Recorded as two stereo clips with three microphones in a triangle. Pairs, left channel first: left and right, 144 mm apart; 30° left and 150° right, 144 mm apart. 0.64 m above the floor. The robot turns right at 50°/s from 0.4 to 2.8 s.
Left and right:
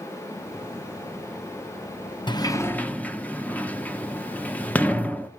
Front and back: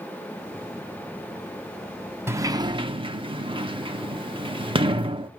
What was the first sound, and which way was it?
A sliding door, 140° left.